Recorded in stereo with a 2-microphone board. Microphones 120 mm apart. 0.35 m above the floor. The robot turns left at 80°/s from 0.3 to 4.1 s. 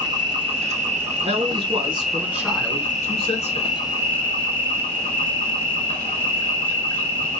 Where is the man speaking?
80° right, 3 m; by 3.7 s 80° left, 3 m.